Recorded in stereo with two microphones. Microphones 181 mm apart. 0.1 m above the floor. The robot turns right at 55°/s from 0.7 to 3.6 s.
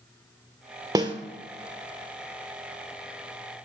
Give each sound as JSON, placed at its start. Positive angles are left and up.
{"t": 0.9, "sound": "a snare drum", "side_deg": -20, "distance_m": 1.0}